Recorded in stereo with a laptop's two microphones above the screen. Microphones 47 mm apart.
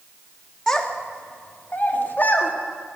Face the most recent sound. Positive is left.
turn(degrees=45)  # may be behind; listen again after turning